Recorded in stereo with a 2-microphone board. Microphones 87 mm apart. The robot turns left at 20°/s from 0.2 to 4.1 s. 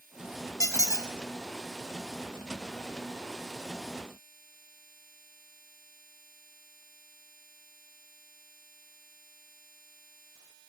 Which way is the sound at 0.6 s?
35° left (ahead or behind).